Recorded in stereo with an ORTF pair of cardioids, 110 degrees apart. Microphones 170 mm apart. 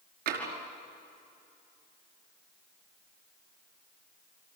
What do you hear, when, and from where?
0.3 s tapping: 65° right, 5 m